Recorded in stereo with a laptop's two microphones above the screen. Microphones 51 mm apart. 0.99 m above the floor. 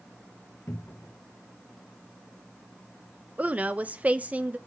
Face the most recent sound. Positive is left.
turn(degrees=-30)  # may be behind; listen again after turning